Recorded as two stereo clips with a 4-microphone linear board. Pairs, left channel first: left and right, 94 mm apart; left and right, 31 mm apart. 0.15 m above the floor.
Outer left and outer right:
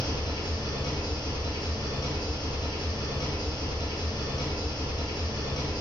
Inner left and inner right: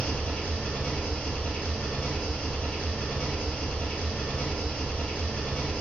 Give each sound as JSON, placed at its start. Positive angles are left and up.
{"t": 0.0, "sound": "an engine running", "side_deg": 50, "distance_m": 1.2}